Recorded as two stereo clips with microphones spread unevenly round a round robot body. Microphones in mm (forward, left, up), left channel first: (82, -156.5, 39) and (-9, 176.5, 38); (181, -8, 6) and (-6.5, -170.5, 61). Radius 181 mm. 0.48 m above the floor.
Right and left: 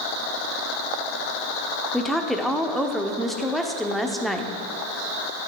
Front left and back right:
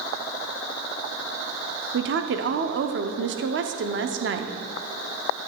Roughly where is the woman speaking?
Behind.